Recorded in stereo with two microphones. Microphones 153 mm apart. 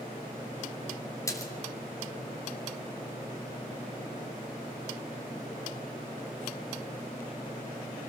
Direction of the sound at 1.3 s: 20° left (ahead or behind).